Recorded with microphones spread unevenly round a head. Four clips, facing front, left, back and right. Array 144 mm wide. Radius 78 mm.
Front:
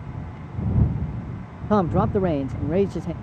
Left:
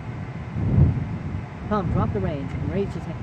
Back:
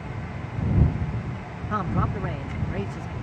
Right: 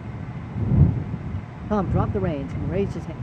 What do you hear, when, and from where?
1.7 s a man speaking: straight ahead